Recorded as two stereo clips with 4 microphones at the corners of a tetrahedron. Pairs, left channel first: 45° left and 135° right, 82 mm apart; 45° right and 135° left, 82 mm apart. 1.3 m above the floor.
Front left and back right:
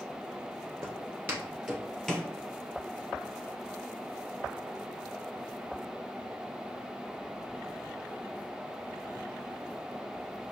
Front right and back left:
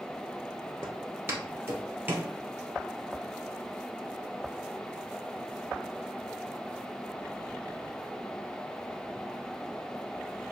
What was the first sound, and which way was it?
Footsteps, 175° right.